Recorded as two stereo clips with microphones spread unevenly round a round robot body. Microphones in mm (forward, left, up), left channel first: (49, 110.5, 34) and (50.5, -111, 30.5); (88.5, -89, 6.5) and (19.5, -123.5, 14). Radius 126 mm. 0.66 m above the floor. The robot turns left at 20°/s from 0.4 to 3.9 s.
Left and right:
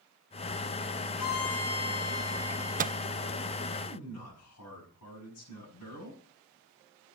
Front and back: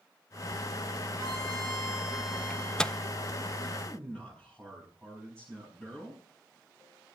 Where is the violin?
120° left, 7.5 m; by 3.1 s 80° left, 7.5 m.